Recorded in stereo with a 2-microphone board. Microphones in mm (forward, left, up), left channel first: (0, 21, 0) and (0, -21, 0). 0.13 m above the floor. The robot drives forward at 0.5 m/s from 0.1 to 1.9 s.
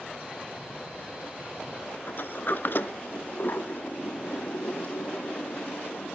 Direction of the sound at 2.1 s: 50° left (ahead or behind).